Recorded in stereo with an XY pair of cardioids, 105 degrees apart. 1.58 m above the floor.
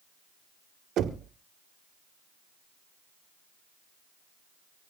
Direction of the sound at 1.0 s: 70° right.